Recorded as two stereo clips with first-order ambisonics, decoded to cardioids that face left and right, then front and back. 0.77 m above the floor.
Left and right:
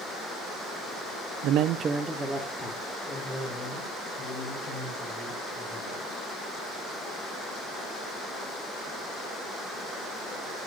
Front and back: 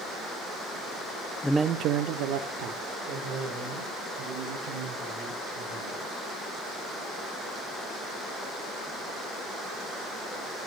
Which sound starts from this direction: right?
A man speaking, at 1.4 s.